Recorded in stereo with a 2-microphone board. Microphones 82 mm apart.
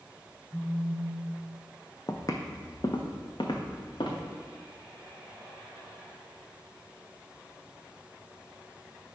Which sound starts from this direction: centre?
A phone buzzing, at 0.5 s.